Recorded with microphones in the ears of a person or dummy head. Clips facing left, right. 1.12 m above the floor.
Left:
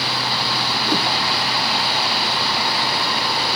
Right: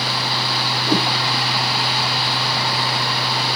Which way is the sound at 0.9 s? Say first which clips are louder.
Right 3 dB; 5° right (ahead or behind).